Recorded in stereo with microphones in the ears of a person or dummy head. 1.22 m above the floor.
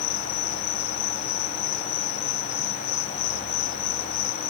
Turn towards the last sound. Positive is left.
turn(degrees=60)  # may be behind; listen again after turning